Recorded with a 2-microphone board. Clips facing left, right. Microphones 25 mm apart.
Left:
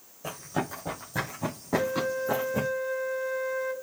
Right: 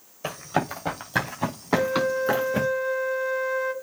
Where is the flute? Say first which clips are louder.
Right 5 dB; 35° right (ahead or behind), 1.1 m.